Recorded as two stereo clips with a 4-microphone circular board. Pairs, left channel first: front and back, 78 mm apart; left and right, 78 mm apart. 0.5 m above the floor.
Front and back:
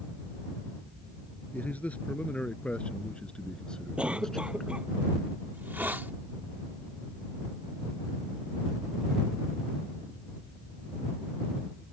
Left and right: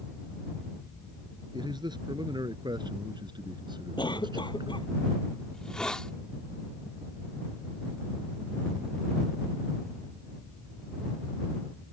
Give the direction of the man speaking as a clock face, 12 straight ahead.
2 o'clock.